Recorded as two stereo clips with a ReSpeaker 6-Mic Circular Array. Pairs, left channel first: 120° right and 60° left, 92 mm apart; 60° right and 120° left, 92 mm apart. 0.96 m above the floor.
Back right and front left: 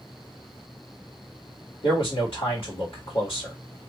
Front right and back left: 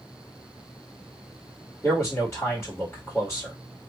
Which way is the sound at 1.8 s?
130° right.